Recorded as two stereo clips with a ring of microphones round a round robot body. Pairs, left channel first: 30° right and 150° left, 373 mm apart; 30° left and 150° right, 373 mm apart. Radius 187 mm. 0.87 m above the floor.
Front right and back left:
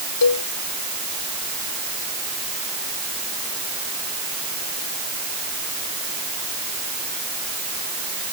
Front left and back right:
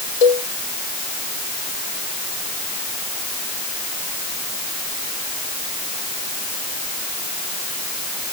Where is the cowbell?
20° left.